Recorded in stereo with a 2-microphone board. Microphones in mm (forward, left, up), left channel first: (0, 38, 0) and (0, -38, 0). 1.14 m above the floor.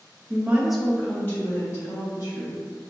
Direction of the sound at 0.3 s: 30° right (ahead or behind).